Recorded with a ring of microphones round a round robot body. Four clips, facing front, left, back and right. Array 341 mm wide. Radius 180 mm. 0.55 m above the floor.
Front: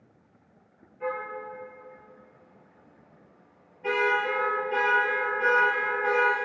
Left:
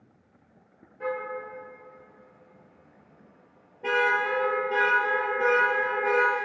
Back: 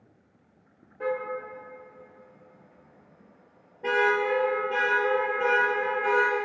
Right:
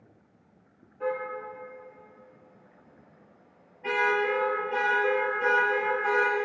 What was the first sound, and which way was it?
A car horn, 175° left.